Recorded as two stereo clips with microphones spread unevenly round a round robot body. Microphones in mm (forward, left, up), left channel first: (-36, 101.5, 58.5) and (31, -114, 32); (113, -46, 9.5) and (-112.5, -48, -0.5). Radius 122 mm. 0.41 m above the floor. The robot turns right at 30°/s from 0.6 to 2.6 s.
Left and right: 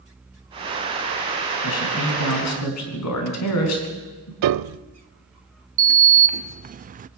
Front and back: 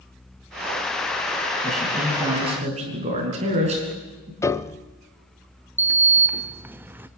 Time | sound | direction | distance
1.6 | a man speaking | 85° left | 4.5 m
4.4 | a piano | 80° right | 0.5 m
5.8 | a sliding door | 105° right | 0.5 m